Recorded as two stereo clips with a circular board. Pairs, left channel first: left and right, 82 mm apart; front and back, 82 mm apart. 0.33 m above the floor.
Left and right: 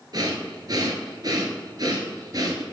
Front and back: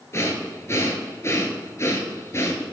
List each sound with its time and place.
0.1 s breathing: 55° right, 1.3 m